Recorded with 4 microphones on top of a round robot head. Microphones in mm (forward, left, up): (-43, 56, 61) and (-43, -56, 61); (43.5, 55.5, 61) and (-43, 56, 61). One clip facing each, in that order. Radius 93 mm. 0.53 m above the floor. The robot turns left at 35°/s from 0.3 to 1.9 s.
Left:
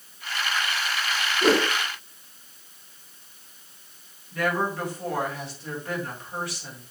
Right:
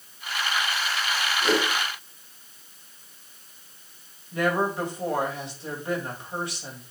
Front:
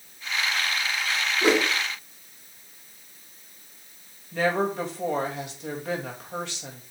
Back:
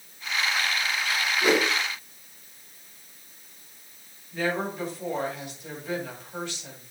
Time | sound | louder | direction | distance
1.4 | a whoosh | left 4 dB, front 1 dB | 50° left | 2 m
4.3 | a woman speaking | right 2 dB, front 4 dB | 20° right | 2.5 m